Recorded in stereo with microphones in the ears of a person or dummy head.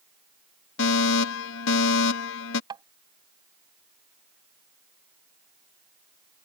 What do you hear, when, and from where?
0.8 s a fire alarm: 65° left (ahead or behind)
2.7 s tapping: 25° right (ahead or behind)